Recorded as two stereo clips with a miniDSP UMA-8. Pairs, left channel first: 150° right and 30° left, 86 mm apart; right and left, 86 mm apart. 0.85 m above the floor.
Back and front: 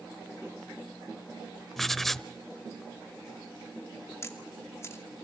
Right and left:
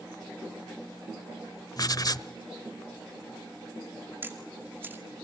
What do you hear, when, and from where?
1.8 s writing: 65° right, 0.8 m
4.2 s a camera shutter: 155° left, 2.5 m